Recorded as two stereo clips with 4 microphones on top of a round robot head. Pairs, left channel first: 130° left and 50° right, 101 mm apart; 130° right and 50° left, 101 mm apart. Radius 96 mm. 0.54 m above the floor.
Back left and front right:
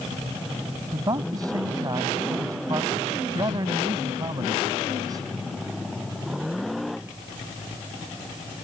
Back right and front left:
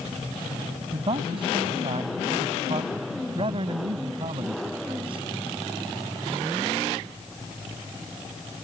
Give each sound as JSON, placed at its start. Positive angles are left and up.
{"t": 0.9, "sound": "a man speaking", "azimuth_deg": 10}